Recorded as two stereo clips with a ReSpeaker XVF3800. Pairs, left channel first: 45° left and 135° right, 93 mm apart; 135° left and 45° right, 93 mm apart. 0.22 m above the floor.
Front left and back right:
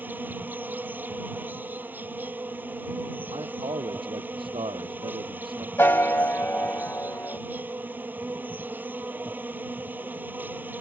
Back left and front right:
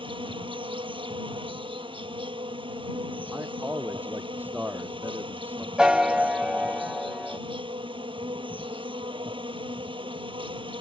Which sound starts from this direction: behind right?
A man speaking, at 3.3 s.